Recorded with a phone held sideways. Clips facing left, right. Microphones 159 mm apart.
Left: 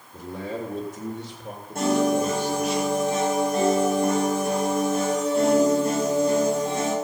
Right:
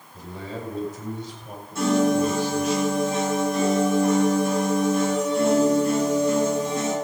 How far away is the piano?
About 7.5 m.